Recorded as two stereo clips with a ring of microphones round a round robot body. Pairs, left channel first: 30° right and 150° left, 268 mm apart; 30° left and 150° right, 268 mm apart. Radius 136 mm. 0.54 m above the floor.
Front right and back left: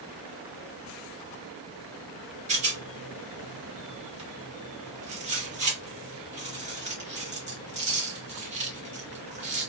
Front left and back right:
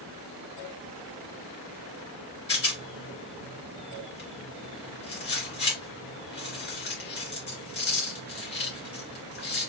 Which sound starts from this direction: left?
A rattle, at 2.5 s.